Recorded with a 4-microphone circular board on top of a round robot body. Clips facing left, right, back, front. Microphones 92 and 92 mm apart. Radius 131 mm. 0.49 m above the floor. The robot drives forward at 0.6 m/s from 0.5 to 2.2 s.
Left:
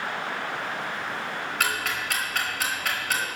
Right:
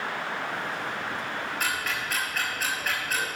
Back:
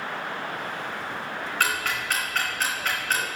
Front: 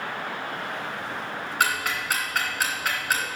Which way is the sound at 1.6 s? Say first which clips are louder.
Left 4 dB, front 2 dB; 75° left.